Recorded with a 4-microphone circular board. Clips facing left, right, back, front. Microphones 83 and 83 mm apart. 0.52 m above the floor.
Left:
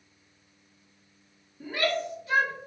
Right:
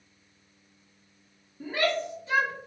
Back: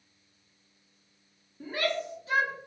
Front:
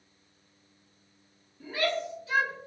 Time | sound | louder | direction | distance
1.6 | a shout | right 1 dB, front 1 dB | 135° right | 1.2 m